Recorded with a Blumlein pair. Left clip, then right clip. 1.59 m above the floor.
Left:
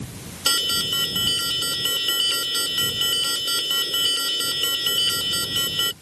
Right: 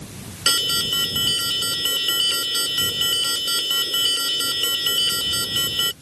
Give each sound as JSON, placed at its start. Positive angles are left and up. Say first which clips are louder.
{"t": 0.5, "sound": "an alarm", "louder": "right 2 dB", "azimuth_deg": -5}